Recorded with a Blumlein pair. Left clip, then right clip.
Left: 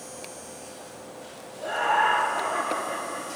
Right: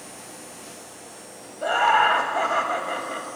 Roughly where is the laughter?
Ahead right.